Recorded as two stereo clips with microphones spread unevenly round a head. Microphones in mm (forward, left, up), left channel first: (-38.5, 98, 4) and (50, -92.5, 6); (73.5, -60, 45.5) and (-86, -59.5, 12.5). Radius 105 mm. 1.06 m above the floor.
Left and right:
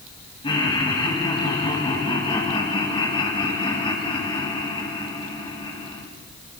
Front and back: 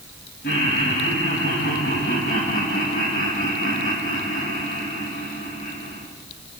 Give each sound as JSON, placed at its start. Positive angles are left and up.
{"t": 0.4, "sound": "laughter", "azimuth_deg": 50, "distance_m": 8.0}